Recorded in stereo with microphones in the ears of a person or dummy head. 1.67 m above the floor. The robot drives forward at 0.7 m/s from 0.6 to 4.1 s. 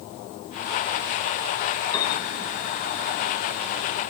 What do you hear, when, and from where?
1.9 s a piano: 20° left (ahead or behind), 4.5 m